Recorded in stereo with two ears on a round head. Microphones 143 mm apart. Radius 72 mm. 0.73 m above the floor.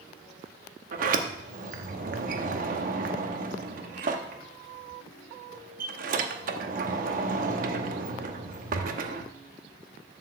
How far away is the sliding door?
About 0.9 m.